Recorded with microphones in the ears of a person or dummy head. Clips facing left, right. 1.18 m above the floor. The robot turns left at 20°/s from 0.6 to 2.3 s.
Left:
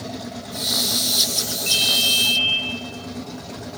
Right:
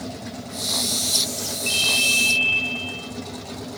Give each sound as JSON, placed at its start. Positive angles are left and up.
{"t": 1.7, "sound": "a ringtone", "side_deg": 5, "distance_m": 5.0}